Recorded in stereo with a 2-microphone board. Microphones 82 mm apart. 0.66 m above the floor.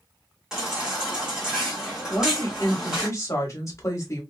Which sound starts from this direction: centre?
A baby crying, at 0.5 s.